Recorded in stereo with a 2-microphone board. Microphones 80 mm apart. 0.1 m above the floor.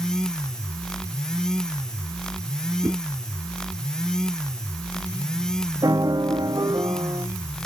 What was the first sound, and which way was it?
A whoosh, 50° right (ahead or behind).